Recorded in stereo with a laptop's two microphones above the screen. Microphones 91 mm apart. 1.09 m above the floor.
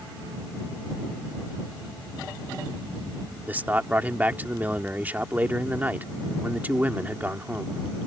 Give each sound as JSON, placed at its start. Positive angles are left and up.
{"t": 3.5, "sound": "a man speaking", "side_deg": -20}